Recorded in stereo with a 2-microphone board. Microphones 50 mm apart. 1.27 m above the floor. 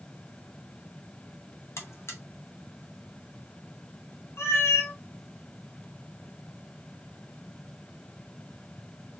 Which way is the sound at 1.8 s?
65° left (ahead or behind).